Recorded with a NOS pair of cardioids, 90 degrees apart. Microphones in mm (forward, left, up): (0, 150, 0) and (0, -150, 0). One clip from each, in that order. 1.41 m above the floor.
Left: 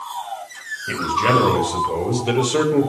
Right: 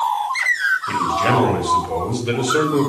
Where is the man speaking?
20° left, 8.5 m.